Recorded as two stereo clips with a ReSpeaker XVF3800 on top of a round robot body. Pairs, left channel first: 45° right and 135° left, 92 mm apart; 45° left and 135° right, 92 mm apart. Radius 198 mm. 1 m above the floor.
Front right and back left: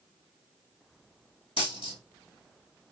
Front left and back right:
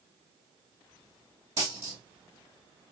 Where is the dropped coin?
75° right, 1.6 m.